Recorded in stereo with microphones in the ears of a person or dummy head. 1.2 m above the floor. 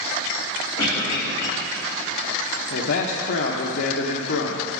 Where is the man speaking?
65° left (ahead or behind), 0.8 m.